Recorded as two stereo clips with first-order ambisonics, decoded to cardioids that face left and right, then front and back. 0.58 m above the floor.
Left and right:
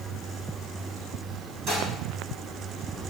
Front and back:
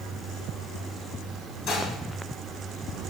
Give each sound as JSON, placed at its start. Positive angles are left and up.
{"t": 1.7, "sound": "dishes clattering", "azimuth_deg": -45, "distance_m": 4.0}